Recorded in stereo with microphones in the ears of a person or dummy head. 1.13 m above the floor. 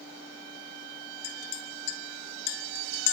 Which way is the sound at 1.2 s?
85° left.